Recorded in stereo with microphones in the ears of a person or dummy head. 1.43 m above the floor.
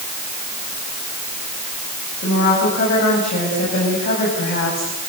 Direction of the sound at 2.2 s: 40° left (ahead or behind).